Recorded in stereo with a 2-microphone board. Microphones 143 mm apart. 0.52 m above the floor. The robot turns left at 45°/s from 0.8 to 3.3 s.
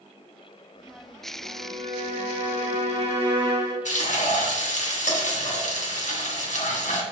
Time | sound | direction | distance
1.4 | a violin | 55° right | 2.0 m
3.9 | frying | 65° left (ahead or behind) | 2.5 m